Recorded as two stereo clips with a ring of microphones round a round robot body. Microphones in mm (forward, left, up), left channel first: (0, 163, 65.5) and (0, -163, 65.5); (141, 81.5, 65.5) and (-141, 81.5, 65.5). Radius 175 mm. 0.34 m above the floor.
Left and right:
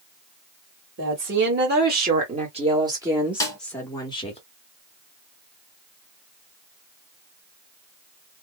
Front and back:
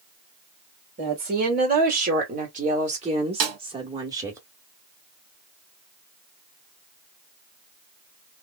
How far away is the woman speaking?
About 2 m.